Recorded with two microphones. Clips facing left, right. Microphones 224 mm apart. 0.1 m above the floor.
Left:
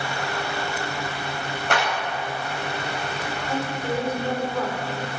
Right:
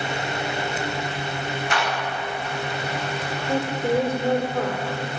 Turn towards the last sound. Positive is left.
turn(degrees=-45)  # may be behind; listen again after turning